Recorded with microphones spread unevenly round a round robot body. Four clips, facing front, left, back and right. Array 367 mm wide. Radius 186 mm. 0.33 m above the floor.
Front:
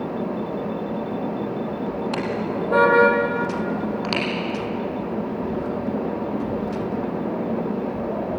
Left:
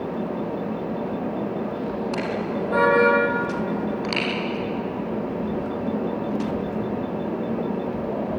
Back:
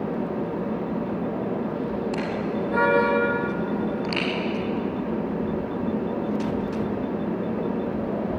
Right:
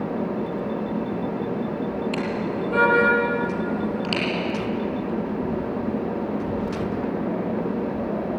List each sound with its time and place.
2.1 s a car horn: 15° left, 6 m; by 4.2 s 10° left, 7.5 m